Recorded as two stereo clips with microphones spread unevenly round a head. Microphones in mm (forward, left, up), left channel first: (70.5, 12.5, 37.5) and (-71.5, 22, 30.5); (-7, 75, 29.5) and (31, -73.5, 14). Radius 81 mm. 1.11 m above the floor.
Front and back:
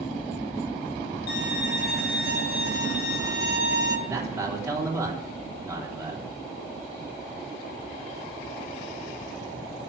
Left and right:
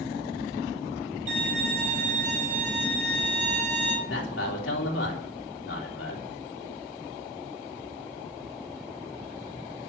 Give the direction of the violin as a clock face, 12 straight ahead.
1 o'clock.